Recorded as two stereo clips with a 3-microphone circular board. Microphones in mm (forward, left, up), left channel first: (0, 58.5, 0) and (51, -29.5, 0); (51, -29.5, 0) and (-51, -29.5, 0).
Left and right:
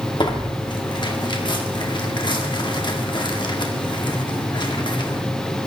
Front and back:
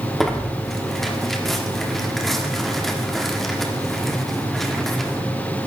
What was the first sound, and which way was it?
Tearing paper, 90° left.